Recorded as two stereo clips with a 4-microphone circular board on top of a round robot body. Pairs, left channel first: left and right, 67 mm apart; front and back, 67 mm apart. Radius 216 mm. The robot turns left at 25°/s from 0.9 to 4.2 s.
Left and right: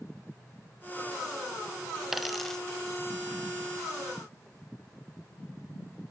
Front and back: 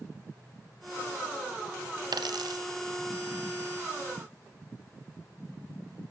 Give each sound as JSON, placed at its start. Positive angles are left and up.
{"t": 2.1, "sound": "a dropped coin", "azimuth_deg": -175, "distance_m": 1.0}